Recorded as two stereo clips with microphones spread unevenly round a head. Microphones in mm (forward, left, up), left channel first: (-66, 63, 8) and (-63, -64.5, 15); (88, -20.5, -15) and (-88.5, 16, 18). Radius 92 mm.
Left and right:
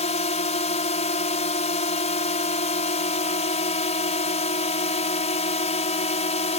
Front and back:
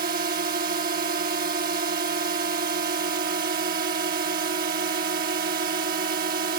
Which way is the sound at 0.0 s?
120° left.